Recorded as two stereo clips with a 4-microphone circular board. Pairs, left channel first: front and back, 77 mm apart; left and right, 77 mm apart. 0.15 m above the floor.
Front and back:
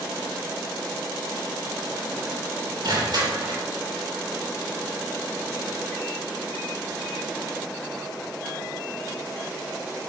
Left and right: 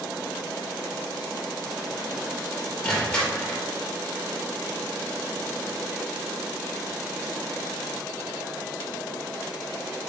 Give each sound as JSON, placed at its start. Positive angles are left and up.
{"t": 2.8, "sound": "crushing", "azimuth_deg": 165, "distance_m": 3.0}